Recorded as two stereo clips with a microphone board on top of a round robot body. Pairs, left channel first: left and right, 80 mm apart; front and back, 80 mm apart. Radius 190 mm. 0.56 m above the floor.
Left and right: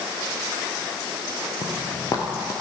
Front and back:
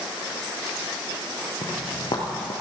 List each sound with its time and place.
1.6 s footsteps: 35° left, 0.8 m